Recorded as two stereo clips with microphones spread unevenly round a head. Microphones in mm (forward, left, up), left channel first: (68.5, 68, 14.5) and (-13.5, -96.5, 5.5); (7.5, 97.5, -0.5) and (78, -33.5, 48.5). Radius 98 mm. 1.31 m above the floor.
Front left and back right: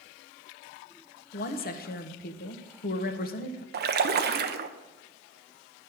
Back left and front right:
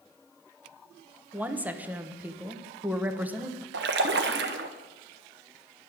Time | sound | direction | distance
1.3 | a woman speaking | 25° left | 1.1 m
3.7 | a splash | 90° right | 0.8 m